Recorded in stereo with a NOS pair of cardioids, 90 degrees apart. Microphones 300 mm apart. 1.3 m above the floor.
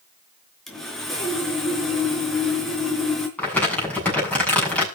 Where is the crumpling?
5° left, 7.5 m.